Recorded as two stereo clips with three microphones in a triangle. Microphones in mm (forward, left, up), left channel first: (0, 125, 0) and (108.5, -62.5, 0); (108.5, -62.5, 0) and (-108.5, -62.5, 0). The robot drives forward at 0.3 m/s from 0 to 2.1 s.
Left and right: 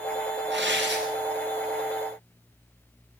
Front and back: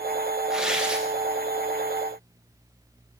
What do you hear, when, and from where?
0.5 s tearing paper: 95° right, 7 m